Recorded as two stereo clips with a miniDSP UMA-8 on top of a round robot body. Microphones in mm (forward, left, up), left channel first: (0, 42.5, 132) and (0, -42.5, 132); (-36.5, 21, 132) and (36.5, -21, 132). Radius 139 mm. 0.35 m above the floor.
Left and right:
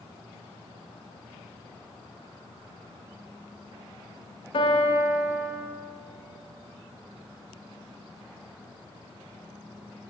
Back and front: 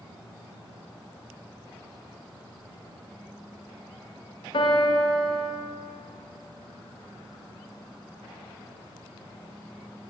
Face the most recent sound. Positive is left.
turn(degrees=120)